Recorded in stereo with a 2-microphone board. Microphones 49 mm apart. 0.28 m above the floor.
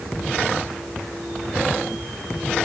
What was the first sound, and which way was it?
Only background noise.